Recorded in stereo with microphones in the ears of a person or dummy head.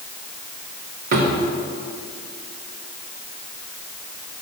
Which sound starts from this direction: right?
A drawer, at 1.1 s.